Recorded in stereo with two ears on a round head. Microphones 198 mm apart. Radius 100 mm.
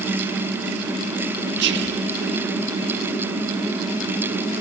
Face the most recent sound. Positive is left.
turn(degrees=-50)  # may be behind; listen again after turning